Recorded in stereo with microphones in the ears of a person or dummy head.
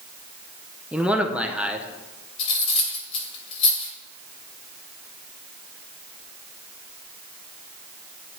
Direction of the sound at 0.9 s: Centre (ahead or behind).